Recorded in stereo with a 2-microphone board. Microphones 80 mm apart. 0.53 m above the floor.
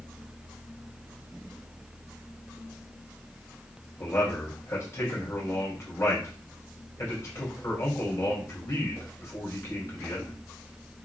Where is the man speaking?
40° left (ahead or behind), 2 m.